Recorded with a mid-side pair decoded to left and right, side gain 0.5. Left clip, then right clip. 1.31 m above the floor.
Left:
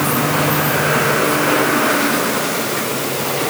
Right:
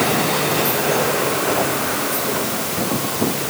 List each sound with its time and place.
Only background noise.